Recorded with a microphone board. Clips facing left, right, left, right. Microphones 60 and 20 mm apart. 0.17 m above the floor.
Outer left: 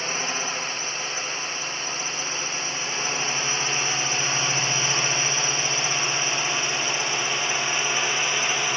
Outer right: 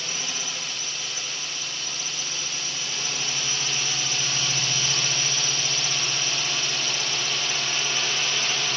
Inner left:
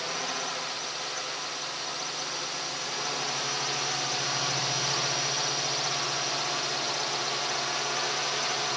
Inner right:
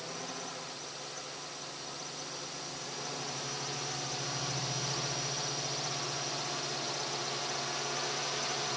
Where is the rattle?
I don't hear a rattle.